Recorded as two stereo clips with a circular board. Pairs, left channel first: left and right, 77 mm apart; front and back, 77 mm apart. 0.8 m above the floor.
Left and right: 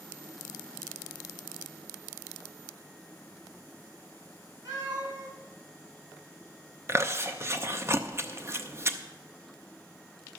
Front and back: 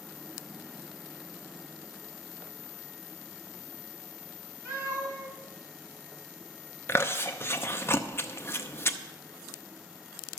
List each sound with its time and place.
4.7 s a cat meowing: 120° right, 4 m
6.9 s chewing: 45° right, 0.8 m